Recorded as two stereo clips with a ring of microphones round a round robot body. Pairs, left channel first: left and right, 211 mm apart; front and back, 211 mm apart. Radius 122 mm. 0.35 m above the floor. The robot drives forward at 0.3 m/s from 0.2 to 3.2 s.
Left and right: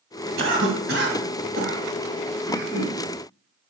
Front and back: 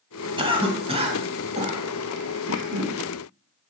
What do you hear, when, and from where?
0.4 s a cough: 115° right, 2 m; by 3.0 s 130° right, 2.5 m